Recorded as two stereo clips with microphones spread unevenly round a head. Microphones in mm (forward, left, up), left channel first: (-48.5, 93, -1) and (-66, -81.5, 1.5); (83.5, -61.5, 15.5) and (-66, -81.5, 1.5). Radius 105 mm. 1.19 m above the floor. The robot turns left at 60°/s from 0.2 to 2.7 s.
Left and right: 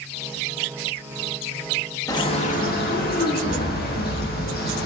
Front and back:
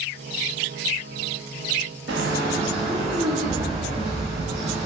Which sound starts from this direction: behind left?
A bird, at 2.1 s.